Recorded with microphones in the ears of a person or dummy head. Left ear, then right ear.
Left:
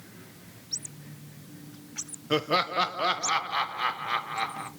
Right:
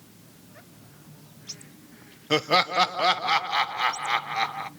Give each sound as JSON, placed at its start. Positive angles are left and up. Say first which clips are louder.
{"t": 2.3, "sound": "laughter", "louder": "right 4 dB", "side_deg": -25, "distance_m": 0.5}